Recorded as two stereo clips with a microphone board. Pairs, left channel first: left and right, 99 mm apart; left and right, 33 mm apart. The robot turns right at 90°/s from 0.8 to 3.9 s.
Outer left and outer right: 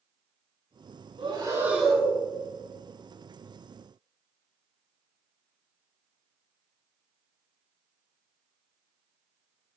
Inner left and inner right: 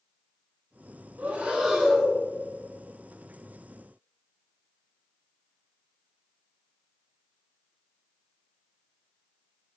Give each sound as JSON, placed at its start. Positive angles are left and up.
{"t": 1.2, "sound": "breathing", "azimuth_deg": -60, "distance_m": 3.0}